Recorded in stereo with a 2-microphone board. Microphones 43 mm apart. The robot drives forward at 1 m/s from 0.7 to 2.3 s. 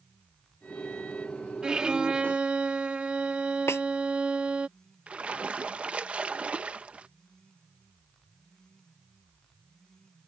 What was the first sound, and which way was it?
A violin, 20° right (ahead or behind).